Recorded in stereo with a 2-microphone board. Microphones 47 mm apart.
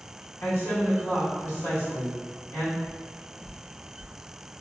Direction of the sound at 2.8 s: 50° left (ahead or behind).